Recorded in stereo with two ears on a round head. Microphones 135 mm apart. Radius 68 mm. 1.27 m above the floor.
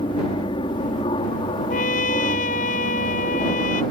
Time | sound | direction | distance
0.0 | an aircraft | 35° left (ahead or behind) | ?
1.7 | a trumpet | 60° left (ahead or behind) | ?